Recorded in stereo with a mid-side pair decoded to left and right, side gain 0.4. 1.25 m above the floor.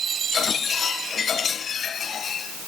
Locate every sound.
Only background noise.